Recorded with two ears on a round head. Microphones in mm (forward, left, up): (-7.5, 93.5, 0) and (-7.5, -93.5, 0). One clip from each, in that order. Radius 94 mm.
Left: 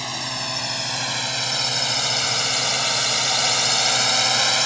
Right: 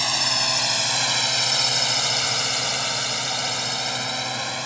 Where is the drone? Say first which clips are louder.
Right 6 dB; 35° right (ahead or behind); by 4.7 s 40° left (ahead or behind).